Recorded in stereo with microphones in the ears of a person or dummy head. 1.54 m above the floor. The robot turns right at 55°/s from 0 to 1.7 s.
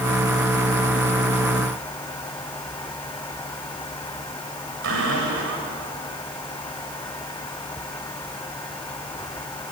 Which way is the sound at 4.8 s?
70° right (ahead or behind).